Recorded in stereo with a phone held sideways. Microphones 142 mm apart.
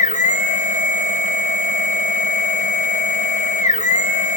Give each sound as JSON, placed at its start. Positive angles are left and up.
{"t": 0.0, "sound": "a machine running", "side_deg": 60, "distance_m": 1.4}